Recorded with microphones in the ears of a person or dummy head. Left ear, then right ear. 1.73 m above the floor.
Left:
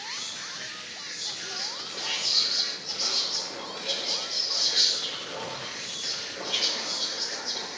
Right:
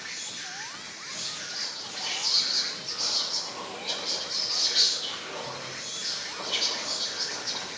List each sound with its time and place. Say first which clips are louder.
0.0 s an insect: left 2 dB; 25° right (ahead or behind), 3 m
1.2 s whispering: even; 40° right (ahead or behind), 6.5 m